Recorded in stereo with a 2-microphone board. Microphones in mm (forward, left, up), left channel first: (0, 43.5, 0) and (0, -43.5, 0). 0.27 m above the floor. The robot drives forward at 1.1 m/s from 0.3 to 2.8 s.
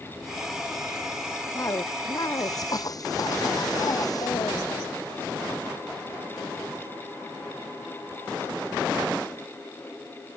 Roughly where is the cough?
Left.